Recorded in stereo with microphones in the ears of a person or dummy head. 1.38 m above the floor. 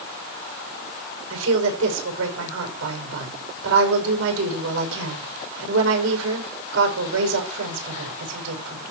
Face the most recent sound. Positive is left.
turn(degrees=-80)